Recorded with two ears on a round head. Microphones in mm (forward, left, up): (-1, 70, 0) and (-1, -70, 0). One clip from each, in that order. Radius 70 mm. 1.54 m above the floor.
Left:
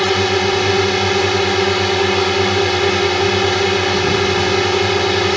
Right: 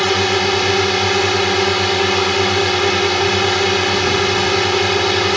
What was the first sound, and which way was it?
A drone, 15° right (ahead or behind).